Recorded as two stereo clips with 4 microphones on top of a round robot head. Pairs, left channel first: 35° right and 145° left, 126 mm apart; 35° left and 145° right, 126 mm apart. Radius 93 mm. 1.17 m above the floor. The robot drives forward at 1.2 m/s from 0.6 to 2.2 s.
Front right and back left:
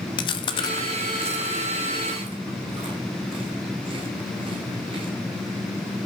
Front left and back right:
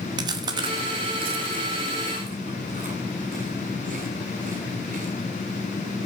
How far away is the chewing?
About 0.7 m.